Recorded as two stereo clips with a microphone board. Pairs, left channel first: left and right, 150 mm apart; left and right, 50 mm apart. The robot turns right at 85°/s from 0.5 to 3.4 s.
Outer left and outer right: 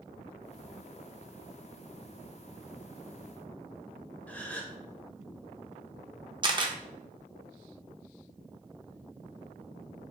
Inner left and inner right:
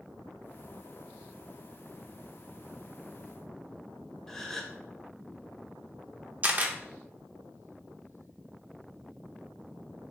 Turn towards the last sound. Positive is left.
turn(degrees=-30)  # may be behind; listen again after turning